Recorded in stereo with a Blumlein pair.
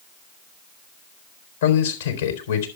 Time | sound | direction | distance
1.6 | a man speaking | 60° left | 4 m